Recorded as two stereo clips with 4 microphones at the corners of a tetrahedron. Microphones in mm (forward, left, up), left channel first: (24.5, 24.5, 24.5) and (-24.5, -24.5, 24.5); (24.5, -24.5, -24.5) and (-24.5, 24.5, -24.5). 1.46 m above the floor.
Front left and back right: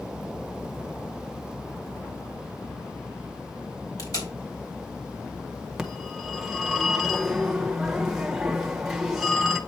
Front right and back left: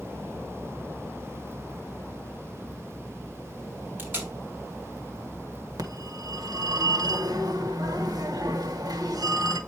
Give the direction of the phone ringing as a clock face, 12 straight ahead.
7 o'clock.